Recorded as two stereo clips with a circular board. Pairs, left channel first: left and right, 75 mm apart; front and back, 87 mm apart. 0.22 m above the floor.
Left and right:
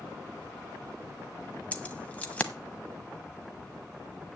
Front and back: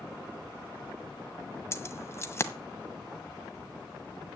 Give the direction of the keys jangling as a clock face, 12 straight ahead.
11 o'clock.